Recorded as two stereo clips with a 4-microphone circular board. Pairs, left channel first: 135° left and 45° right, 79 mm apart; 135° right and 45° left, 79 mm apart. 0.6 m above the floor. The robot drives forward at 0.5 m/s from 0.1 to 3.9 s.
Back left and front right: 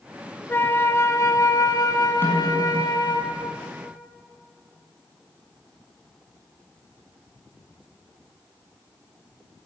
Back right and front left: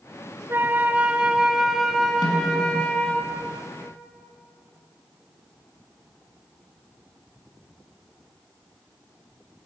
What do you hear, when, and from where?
0.5 s a flute: 85° left, 1.0 m; by 3.2 s 155° left, 1.7 m
2.2 s a snare drum: 165° right, 6 m